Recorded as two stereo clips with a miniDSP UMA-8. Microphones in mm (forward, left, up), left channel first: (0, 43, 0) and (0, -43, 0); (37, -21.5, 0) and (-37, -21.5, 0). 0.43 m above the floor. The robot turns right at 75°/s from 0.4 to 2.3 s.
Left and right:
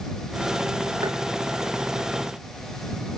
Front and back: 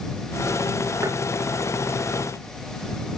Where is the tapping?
130° right; by 1.2 s 120° right.